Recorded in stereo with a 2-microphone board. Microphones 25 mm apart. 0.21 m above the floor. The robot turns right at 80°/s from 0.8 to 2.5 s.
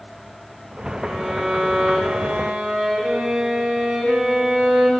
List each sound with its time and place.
1.0 s a violin: 140° right, 7.5 m; by 4.9 s 25° right, 7.5 m